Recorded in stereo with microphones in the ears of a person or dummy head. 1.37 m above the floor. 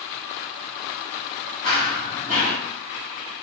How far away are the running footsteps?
About 1.8 m.